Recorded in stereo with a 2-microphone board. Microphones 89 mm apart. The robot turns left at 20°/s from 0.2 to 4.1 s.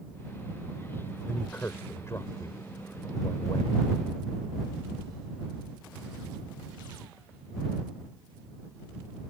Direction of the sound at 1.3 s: 15° left (ahead or behind).